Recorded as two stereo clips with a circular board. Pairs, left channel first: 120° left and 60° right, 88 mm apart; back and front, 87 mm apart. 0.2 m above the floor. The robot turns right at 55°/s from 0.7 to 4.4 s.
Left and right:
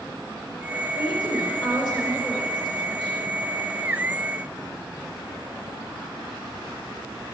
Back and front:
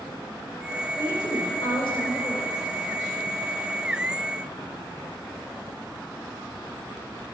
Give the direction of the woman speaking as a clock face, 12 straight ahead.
8 o'clock.